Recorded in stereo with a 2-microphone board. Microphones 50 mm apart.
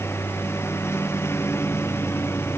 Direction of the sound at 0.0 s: 60° left (ahead or behind).